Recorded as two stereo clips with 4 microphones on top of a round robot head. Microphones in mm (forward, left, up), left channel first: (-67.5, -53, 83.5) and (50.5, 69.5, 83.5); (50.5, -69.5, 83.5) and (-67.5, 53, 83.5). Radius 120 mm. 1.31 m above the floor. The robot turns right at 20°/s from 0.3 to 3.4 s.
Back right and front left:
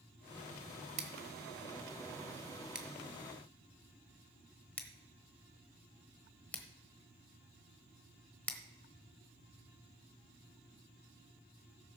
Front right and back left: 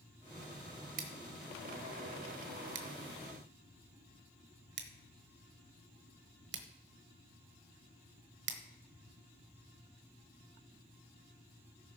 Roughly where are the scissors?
Left.